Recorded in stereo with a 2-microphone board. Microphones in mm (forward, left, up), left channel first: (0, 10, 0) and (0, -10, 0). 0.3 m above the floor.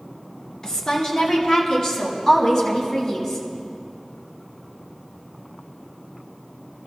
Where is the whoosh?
I don't hear a whoosh.